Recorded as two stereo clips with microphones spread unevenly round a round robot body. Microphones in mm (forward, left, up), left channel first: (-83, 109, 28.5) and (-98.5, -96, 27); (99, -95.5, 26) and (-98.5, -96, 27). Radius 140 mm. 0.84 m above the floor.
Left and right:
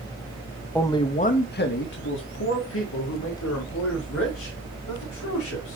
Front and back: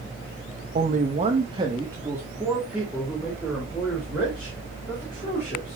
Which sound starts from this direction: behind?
A man speaking, at 0.8 s.